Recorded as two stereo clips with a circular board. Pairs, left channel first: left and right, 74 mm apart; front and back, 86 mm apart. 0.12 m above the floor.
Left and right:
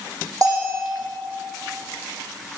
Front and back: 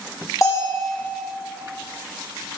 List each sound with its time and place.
0.4 s a bell: 50° right, 6 m